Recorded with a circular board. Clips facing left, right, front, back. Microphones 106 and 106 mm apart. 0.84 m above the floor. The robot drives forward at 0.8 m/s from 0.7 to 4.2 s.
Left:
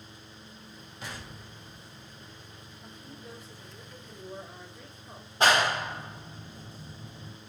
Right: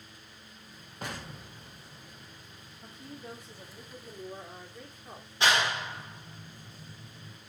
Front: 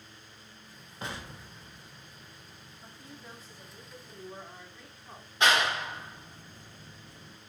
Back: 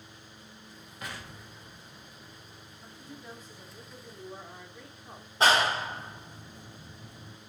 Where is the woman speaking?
90° right, 1.6 m; by 5.3 s 125° right, 1.9 m.